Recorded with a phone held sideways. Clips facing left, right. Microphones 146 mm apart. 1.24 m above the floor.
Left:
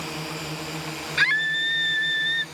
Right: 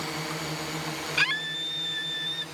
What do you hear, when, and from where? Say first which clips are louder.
0.0 s a drone: left 1 dB; centre (ahead or behind)
1.2 s a scream: left 4 dB; 15° right (ahead or behind)